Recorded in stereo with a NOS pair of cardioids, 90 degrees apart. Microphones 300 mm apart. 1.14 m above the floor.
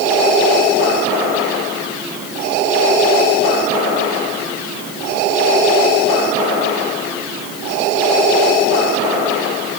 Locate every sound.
Only background noise.